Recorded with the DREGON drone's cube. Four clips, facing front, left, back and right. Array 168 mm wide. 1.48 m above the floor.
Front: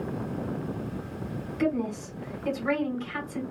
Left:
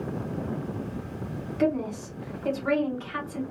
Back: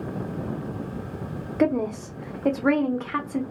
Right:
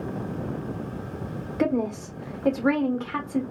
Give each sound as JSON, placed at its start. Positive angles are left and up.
{"t": 1.6, "sound": "a woman speaking", "azimuth_deg": -145, "distance_m": 1.2}